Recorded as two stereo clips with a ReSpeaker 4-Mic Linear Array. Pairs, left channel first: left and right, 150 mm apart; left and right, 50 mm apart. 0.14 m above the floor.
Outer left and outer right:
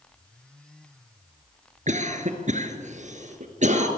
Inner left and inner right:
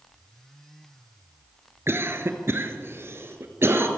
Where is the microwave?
I don't hear a microwave.